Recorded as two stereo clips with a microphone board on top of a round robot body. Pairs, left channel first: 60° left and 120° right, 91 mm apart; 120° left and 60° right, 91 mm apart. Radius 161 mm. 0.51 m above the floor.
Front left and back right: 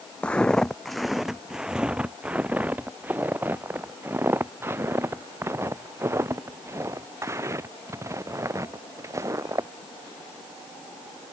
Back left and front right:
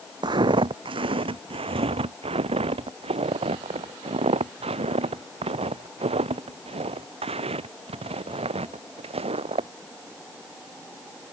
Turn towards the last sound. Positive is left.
turn(degrees=-60)